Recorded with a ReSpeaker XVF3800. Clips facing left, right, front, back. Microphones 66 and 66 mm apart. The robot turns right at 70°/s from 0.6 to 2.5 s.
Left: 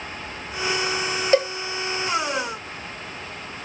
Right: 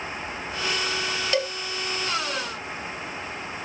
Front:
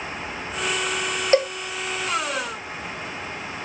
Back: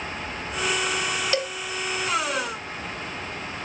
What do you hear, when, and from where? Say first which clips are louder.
1.3 s a cowbell: left 8 dB, front 11 dB; 40° left, 1.0 m; by 1.5 s 50° left, 1.0 m